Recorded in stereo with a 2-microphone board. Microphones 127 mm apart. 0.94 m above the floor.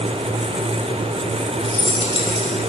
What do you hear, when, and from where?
1.6 s keys jangling: 50° left (ahead or behind), 2 m